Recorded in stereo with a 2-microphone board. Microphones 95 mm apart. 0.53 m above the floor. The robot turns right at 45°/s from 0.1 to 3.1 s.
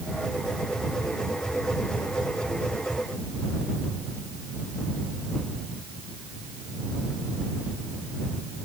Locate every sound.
Only background noise.